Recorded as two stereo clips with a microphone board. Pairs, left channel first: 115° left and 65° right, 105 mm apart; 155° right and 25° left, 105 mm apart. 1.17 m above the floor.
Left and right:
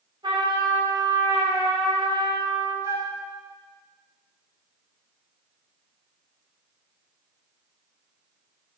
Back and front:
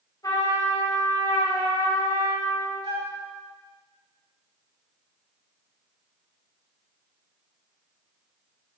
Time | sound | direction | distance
0.2 | a trumpet | 105° right | 4.5 m
2.8 | a flute | 10° right | 2 m